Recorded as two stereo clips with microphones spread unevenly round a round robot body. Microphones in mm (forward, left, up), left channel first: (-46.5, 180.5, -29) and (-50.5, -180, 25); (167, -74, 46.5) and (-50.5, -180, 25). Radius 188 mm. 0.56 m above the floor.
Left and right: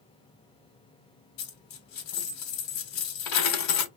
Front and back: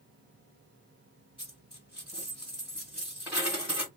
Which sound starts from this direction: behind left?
A dropped coin, at 1.4 s.